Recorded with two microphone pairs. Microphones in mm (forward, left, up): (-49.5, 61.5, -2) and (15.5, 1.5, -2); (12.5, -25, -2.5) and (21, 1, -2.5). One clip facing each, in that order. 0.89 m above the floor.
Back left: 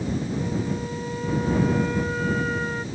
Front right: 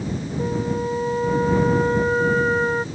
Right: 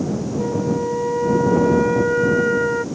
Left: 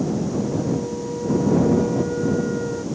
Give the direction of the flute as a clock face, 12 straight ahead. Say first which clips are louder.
Front right 4 dB, right 2 dB; 3 o'clock.